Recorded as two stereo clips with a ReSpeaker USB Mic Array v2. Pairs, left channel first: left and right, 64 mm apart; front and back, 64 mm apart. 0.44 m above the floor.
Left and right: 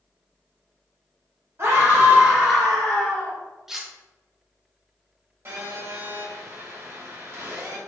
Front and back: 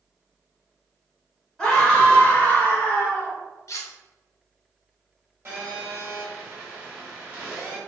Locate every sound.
1.6 s a scream: 80° right, 1.9 m; by 3.4 s 45° left, 1.9 m
3.7 s cutlery clinking: 10° right, 0.6 m
5.5 s a phone buzzing: 130° right, 1.5 m